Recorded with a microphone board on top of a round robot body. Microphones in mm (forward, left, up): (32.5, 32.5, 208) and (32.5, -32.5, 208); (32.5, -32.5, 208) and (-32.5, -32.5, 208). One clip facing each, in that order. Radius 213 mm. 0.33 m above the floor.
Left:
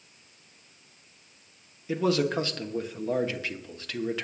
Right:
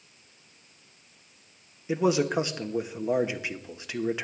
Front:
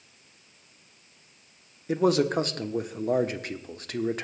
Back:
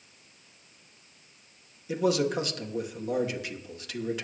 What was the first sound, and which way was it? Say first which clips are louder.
A man speaking: right 1 dB, front 3 dB; 20° right.